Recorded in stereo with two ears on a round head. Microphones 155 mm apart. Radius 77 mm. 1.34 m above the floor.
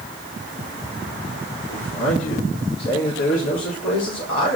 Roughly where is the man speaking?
Left.